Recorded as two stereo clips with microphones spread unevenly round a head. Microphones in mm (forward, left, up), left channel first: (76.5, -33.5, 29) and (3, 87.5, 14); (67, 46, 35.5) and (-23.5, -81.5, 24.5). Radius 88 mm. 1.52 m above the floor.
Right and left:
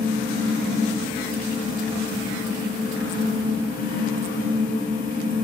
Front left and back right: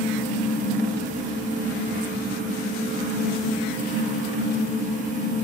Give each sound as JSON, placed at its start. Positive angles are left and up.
{"t": 0.0, "sound": "a fan", "azimuth_deg": -95, "distance_m": 1.4}